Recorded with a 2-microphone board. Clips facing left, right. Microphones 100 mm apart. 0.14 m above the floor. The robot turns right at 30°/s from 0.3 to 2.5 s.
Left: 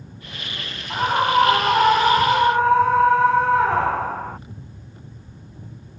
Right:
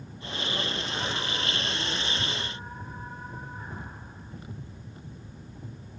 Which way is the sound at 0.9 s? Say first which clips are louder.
Left 14 dB; 55° left.